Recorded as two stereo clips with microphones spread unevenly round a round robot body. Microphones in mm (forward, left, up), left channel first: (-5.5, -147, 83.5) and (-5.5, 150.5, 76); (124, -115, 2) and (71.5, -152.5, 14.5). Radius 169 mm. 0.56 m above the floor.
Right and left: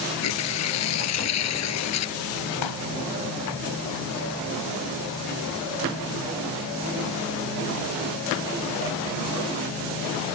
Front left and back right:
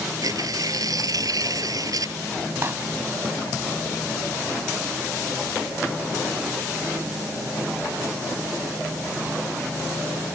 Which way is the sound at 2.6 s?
95° right.